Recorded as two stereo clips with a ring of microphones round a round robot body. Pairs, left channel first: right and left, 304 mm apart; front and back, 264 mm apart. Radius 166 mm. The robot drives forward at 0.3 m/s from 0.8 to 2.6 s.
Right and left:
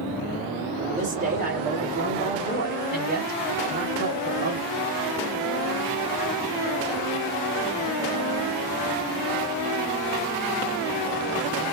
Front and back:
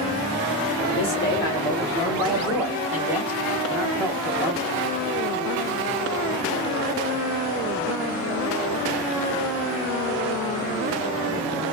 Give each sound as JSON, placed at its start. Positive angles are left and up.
{"t": 1.0, "sound": "a man speaking", "azimuth_deg": 50, "distance_m": 1.1}